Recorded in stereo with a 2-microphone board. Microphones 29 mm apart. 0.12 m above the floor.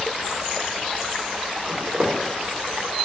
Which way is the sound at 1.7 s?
35° right (ahead or behind).